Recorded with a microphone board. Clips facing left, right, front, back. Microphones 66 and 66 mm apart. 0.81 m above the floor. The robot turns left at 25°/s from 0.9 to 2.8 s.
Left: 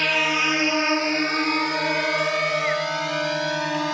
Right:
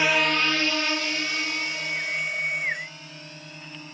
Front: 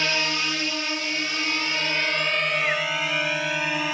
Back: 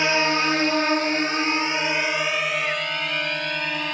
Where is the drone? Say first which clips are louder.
Even, back 5 dB; 155° right; by 3.9 s 85° left.